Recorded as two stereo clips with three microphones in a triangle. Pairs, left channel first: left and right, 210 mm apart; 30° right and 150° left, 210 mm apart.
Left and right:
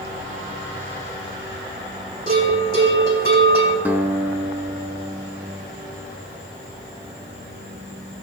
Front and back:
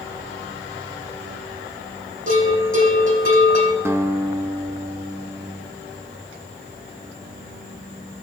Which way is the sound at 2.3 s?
135° left.